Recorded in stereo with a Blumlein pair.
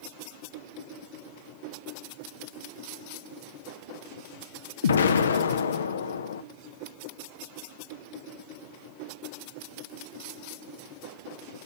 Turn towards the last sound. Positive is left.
turn(degrees=65)